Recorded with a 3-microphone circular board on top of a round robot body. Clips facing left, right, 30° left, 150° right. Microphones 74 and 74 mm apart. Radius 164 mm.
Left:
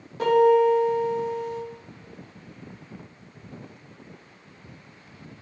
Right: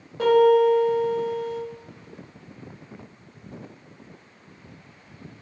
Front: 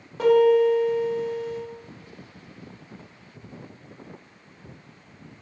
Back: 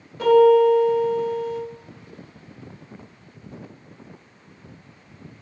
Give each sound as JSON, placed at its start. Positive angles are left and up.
{"t": 0.2, "sound": "a piano", "azimuth_deg": -30, "distance_m": 0.6}